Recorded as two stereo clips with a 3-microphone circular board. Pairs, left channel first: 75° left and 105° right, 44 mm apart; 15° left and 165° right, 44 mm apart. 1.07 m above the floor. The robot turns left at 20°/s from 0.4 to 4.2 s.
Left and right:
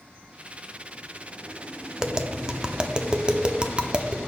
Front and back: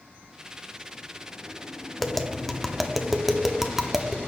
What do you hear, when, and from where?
2.0 s tapping: 55° right, 0.6 m; by 4.3 s 100° right, 0.6 m